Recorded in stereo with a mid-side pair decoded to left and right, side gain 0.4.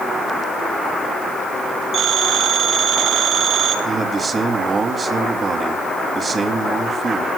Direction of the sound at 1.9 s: 65° right.